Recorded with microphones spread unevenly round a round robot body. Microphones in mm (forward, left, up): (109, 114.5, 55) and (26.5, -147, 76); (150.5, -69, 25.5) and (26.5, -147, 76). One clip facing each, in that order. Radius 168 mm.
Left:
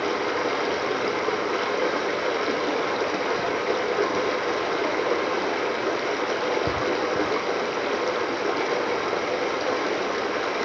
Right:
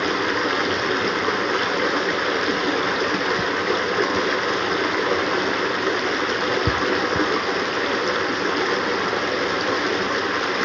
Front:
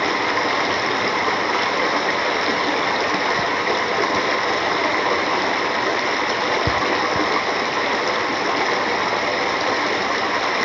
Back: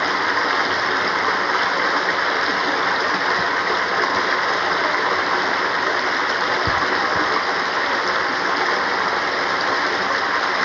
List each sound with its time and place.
0.0 s running water: 45° right, 1.5 m